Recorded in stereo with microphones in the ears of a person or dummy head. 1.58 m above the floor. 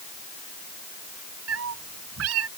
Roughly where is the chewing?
I don't hear chewing.